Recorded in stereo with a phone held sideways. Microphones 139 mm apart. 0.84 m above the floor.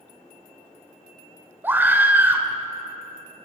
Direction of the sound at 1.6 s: 15° right (ahead or behind).